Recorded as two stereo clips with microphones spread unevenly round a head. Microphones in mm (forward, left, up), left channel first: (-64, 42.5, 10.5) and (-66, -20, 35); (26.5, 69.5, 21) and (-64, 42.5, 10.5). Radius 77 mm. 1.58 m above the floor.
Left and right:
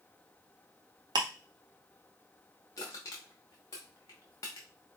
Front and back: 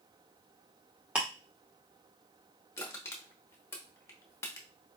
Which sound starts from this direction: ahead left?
Crushing, at 2.8 s.